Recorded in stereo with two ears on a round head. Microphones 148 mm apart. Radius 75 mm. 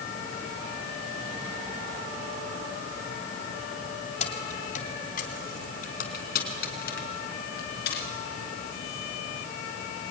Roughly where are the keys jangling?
Left.